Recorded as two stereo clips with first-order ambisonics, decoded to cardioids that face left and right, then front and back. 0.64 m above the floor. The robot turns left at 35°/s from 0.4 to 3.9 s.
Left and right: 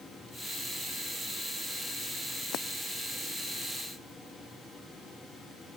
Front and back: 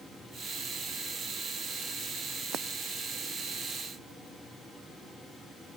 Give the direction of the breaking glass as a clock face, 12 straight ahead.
8 o'clock.